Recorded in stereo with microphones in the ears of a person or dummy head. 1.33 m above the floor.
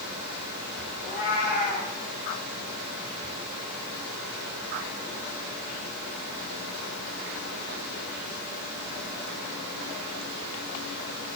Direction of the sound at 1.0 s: 55° left (ahead or behind).